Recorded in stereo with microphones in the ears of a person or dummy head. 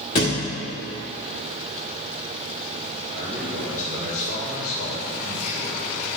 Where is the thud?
20° left (ahead or behind), 1.4 m.